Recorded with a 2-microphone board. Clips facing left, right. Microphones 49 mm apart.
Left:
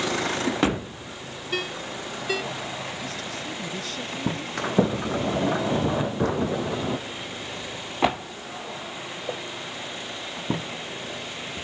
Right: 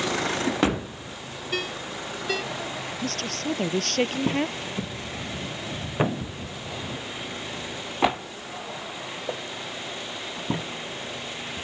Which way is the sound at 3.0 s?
70° right (ahead or behind).